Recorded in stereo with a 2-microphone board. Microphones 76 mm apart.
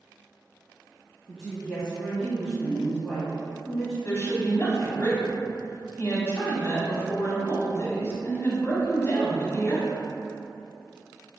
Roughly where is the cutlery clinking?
I don't hear cutlery clinking.